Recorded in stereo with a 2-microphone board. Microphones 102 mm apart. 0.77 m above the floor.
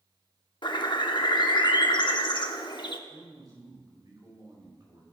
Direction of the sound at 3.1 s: 40° right (ahead or behind).